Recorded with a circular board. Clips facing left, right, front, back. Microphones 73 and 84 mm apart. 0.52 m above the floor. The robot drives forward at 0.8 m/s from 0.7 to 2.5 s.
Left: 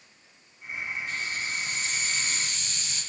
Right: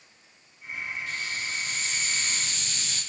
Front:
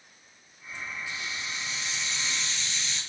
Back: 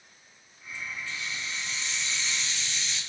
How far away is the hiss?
About 5.5 m.